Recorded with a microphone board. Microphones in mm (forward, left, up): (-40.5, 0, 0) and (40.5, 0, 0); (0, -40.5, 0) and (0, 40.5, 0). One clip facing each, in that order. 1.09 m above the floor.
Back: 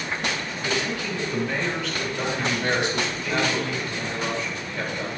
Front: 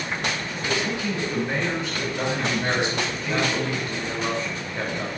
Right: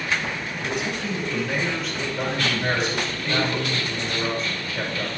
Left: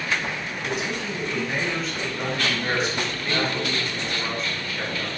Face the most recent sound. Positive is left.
turn(degrees=-65)